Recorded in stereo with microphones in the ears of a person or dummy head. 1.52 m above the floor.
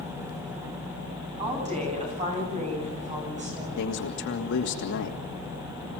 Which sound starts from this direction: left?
A man speaking, at 3.8 s.